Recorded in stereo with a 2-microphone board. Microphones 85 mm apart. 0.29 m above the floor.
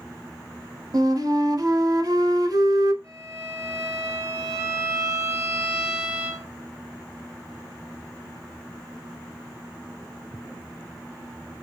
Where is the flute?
50° right (ahead or behind), 0.6 m.